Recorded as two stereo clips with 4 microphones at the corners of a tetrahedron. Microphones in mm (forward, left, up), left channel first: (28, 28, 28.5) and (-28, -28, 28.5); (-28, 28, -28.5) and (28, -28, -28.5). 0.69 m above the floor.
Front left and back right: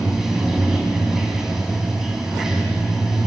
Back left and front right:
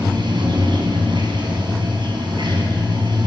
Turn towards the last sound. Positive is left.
turn(degrees=-50)